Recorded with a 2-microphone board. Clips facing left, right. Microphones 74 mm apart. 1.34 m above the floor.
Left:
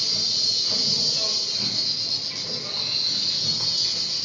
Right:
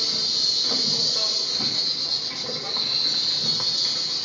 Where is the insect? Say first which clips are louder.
Right 2 dB; 45° right (ahead or behind), 1.0 m.